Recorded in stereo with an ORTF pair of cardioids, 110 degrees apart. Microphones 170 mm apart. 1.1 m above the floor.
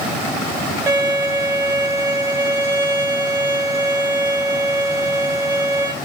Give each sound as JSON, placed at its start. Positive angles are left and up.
{"t": 0.9, "sound": "a violin", "azimuth_deg": -15, "distance_m": 2.5}